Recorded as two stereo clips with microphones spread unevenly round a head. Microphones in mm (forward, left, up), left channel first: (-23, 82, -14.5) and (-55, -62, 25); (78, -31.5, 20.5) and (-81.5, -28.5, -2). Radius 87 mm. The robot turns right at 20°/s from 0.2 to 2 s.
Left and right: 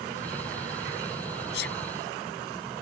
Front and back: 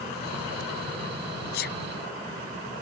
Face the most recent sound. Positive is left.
turn(degrees=50)